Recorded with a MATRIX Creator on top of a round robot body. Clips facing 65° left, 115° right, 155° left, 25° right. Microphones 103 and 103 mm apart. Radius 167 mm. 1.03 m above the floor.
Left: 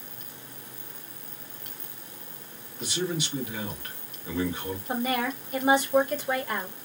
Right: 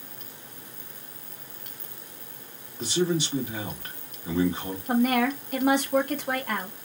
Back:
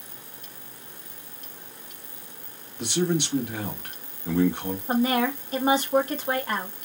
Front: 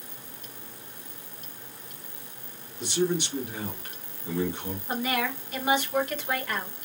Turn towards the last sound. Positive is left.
turn(degrees=-145)